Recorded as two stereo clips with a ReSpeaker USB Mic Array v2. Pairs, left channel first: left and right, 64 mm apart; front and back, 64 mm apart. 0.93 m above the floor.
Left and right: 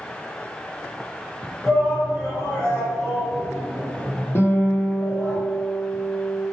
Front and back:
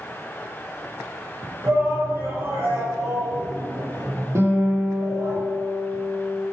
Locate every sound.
1.6 s a shout: 160° left, 1.3 m
4.3 s a guitar: 135° left, 0.9 m